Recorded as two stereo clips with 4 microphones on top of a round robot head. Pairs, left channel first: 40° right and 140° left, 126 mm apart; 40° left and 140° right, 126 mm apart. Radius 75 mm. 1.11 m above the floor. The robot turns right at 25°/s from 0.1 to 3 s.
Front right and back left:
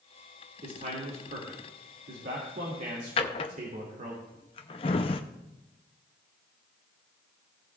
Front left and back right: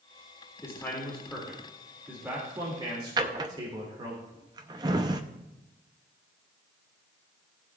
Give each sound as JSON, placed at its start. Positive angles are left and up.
{"t": 0.6, "sound": "a man speaking", "azimuth_deg": 105, "distance_m": 2.5}
{"t": 3.2, "sound": "a drawer", "azimuth_deg": -85, "distance_m": 0.5}